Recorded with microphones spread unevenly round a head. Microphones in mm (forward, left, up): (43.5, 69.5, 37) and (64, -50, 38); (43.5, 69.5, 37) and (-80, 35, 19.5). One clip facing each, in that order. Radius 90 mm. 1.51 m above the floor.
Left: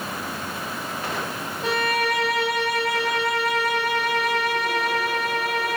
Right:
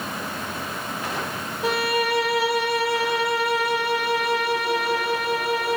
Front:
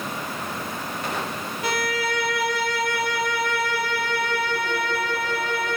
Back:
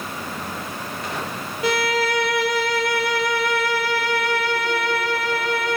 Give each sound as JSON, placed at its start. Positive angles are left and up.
{"t": 1.6, "sound": "a violin", "azimuth_deg": -165, "distance_m": 0.9}